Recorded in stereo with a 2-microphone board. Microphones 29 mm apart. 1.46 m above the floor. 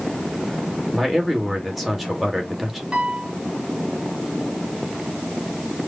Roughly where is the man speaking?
Centre.